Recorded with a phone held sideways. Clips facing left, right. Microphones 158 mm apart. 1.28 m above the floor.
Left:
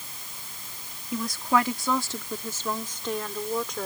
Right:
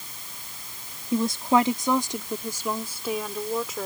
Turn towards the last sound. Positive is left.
turn(degrees=-5)  # may be behind; listen again after turning